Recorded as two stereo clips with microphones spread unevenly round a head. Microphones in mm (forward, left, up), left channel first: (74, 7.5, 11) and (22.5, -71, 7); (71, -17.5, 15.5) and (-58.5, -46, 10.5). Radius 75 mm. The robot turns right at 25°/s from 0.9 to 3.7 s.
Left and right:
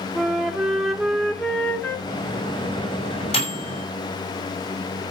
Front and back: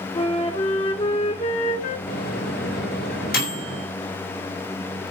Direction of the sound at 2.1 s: 15° left.